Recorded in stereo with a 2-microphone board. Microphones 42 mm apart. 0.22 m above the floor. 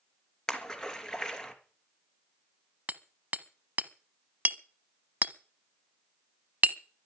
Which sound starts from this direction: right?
Hammering, at 2.9 s.